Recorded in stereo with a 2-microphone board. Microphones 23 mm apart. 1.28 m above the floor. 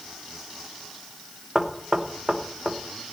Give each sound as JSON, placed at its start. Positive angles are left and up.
{"t": 1.6, "sound": "knocking", "side_deg": -35, "distance_m": 1.1}